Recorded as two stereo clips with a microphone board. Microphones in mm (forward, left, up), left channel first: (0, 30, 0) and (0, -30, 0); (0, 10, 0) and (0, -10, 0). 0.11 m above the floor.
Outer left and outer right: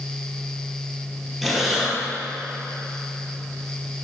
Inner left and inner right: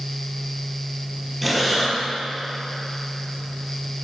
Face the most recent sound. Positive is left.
turn(degrees=0)  # may be behind; listen again after turning